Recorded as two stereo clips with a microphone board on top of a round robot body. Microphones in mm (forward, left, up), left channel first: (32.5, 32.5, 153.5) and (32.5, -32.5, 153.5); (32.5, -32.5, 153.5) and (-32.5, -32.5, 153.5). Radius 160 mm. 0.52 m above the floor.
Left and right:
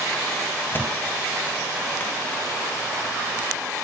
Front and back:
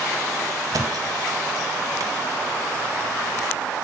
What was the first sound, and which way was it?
A thud, 150° left.